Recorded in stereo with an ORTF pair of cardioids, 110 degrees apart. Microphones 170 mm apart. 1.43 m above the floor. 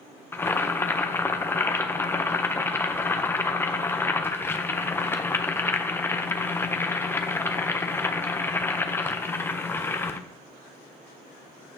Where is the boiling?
15° left, 0.6 m.